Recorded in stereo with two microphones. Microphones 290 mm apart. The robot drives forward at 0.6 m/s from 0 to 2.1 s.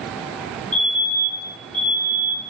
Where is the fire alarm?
55° left (ahead or behind), 3.5 m; by 2.4 s 50° left (ahead or behind), 4 m.